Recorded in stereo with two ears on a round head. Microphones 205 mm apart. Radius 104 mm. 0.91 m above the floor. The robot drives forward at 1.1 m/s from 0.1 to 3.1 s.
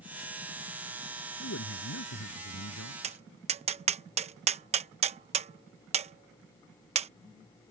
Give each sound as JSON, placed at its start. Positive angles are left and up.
{"t": 1.4, "sound": "a man speaking", "side_deg": 60}
{"t": 3.0, "sound": "tapping", "side_deg": -30}